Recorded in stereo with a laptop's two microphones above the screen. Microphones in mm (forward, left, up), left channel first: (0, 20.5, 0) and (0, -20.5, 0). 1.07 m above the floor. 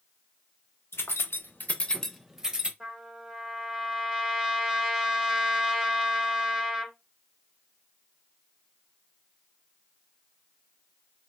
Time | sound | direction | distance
0.9 | keys jangling | 75° left (ahead or behind) | 0.8 m
2.8 | a trumpet | 10° right (ahead or behind) | 1.6 m